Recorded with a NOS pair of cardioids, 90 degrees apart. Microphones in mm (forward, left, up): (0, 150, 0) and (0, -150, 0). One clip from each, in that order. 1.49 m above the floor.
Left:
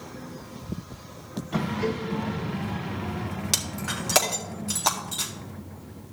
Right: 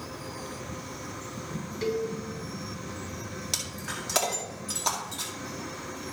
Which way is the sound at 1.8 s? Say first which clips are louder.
Right 4 dB; 65° right.